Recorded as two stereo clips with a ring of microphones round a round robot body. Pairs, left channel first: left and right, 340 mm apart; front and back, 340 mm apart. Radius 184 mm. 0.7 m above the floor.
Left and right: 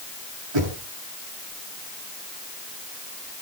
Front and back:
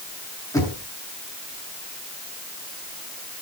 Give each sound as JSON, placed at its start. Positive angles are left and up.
{"t": 0.5, "sound": "knocking", "azimuth_deg": -80, "distance_m": 7.5}